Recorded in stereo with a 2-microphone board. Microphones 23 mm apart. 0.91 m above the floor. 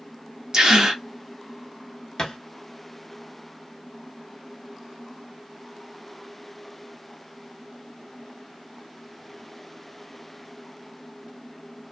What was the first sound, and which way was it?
A gasp, 30° right (ahead or behind).